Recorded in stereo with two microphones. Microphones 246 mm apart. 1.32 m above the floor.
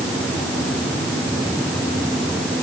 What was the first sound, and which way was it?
Only background noise.